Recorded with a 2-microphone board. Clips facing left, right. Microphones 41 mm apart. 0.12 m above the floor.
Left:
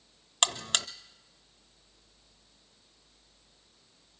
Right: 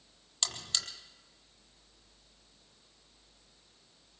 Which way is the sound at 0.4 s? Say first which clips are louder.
Left 8 dB; 65° left (ahead or behind).